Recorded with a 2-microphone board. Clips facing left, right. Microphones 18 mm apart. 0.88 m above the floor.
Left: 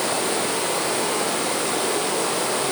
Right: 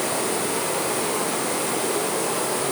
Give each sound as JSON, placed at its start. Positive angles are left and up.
{"t": 0.0, "sound": "running water", "side_deg": 25, "distance_m": 8.5}